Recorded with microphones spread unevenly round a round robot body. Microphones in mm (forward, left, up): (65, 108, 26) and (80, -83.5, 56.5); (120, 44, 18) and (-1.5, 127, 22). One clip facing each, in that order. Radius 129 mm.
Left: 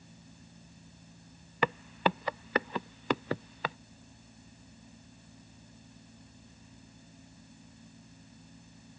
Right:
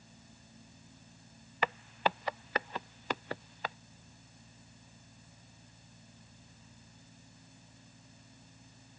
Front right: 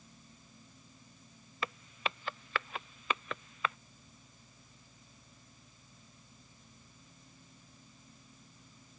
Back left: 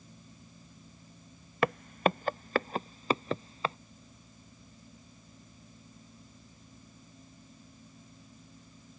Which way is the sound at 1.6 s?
115° left.